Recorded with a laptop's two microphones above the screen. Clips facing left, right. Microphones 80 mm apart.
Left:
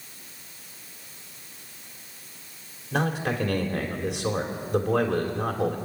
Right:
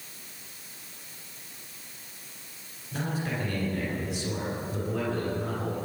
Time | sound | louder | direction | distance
2.9 | a man speaking | left 6 dB | 75° left (ahead or behind) | 3.5 m